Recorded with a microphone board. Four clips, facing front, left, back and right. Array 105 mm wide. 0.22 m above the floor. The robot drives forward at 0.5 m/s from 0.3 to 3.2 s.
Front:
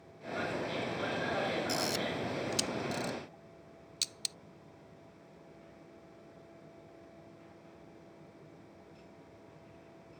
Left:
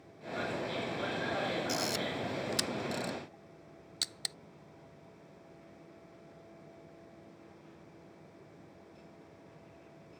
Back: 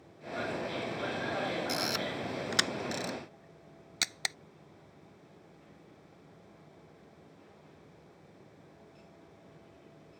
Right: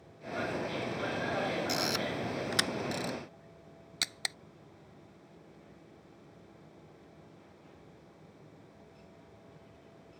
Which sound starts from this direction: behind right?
A camera shutter, at 1.7 s.